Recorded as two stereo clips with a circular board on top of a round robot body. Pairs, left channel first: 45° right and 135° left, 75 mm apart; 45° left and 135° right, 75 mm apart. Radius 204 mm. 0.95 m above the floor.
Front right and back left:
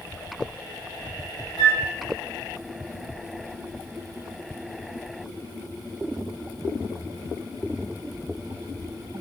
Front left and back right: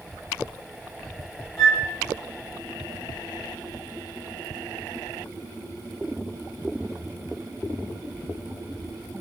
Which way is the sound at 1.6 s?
40° right.